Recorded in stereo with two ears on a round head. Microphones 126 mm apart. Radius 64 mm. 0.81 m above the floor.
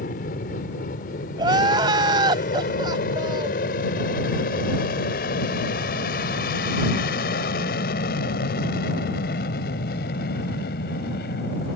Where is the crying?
35° right (ahead or behind).